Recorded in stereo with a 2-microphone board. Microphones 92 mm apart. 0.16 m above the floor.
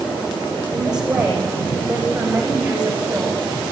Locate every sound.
0.7 s a woman speaking: 10° right (ahead or behind), 9 m; by 3.4 s 15° right (ahead or behind), 10 m